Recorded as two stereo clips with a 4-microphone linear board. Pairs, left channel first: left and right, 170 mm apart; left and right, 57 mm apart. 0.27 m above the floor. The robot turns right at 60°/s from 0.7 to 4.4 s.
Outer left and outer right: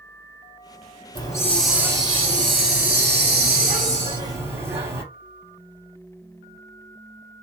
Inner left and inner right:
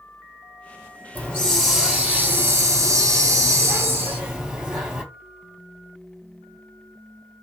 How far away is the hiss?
About 1.0 m.